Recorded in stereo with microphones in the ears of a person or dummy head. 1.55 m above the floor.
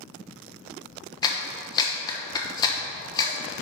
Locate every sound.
1.2 s a clap: 25° left (ahead or behind), 1.0 m